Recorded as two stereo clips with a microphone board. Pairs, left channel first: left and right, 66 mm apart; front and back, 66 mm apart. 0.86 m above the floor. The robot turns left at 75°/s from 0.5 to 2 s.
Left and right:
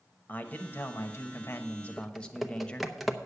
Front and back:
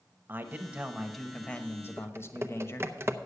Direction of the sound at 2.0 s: 175° right.